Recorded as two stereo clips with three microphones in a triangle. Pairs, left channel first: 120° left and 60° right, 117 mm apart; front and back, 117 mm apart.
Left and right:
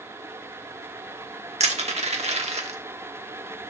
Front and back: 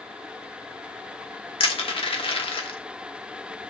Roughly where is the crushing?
Ahead right.